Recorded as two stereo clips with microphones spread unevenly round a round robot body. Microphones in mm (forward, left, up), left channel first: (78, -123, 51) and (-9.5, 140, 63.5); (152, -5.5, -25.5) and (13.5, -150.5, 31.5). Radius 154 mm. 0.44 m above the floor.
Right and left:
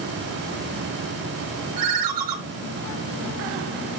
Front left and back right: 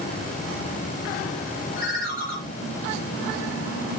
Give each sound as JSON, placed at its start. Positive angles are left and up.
{"t": 1.8, "sound": "a ringtone", "azimuth_deg": 110, "distance_m": 3.0}